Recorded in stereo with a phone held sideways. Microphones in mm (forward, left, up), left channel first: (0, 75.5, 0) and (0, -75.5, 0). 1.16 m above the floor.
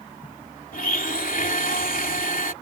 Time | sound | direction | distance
0.7 | a blender | 70° left (ahead or behind) | ?